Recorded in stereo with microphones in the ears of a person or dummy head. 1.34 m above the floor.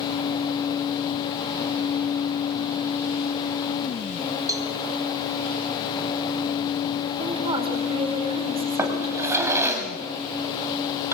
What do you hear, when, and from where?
4.5 s a cowbell: 20° right (ahead or behind), 3 m
7.2 s a woman speaking: 25° right (ahead or behind), 4 m
8.8 s a drawer: 15° right (ahead or behind), 2 m